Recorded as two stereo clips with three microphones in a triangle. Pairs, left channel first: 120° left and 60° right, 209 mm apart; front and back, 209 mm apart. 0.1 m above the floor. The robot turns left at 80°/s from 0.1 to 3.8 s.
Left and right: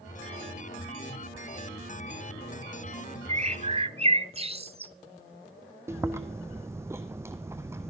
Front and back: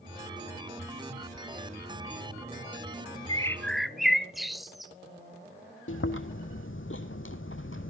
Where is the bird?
50° right, 0.7 m; by 4.9 s 90° right, 0.7 m.